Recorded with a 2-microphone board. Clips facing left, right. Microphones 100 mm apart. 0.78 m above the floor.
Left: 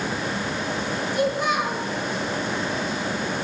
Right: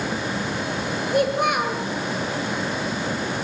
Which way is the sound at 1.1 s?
60° right (ahead or behind).